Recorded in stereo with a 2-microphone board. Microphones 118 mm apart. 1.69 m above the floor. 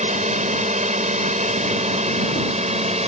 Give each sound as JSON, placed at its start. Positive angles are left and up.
{"t": 0.0, "sound": "a drone", "side_deg": -85}